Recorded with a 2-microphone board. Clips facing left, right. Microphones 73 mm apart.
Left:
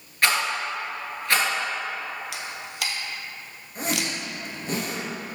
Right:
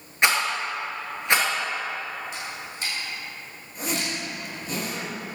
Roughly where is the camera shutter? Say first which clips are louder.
Even; left.